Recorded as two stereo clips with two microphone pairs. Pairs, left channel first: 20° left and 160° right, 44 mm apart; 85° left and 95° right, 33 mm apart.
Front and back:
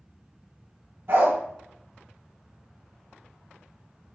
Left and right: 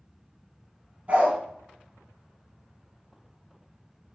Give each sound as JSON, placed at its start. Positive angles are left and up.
{"t": 1.1, "sound": "a dog barking", "azimuth_deg": -140, "distance_m": 0.7}